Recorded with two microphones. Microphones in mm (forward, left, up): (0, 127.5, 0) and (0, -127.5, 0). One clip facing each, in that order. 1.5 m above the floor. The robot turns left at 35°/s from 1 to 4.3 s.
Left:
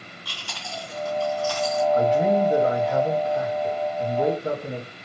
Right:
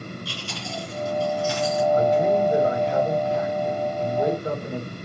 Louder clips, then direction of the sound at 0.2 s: Right 6 dB; 25° right (ahead or behind).